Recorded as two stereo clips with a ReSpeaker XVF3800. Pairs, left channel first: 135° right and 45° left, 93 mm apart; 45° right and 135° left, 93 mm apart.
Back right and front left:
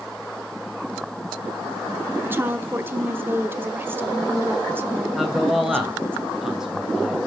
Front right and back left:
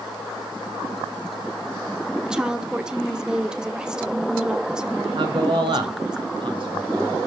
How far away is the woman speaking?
About 1.0 m.